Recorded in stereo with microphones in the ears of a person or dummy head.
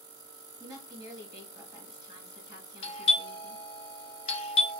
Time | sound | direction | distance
0.6 | a woman speaking | 20° right (ahead or behind) | 1.2 m
2.8 | a doorbell | 20° left (ahead or behind) | 0.8 m